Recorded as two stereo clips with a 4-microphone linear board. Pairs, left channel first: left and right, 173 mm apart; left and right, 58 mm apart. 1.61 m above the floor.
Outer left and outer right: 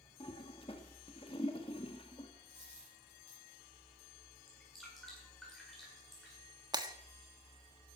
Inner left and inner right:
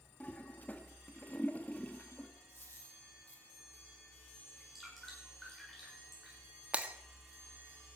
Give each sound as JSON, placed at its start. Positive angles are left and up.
{"t": 0.2, "sound": "a toilet flushing", "side_deg": 30, "distance_m": 1.6}
{"t": 2.5, "sound": "a dropped coin", "side_deg": 40, "distance_m": 8.5}
{"t": 4.5, "sound": "dripping", "side_deg": 0, "distance_m": 7.0}
{"t": 6.7, "sound": "breaking glass", "side_deg": -25, "distance_m": 1.4}